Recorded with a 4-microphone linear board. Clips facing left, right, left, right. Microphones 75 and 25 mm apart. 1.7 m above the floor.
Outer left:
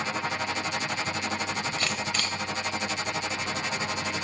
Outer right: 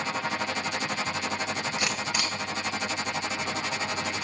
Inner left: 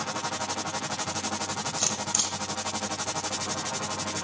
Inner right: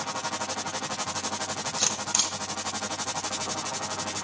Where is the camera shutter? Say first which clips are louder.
Outer right 1 dB, inner right 3 dB; 15° right (ahead or behind), 1.4 m.